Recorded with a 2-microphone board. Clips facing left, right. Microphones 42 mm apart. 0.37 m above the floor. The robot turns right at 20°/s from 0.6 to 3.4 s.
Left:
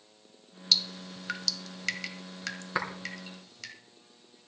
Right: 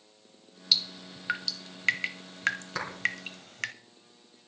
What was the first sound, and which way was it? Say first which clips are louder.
Dripping: even; 10° right (ahead or behind).